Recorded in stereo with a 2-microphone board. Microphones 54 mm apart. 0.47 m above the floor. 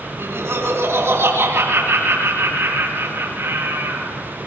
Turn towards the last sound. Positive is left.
turn(degrees=-55)  # may be behind; listen again after turning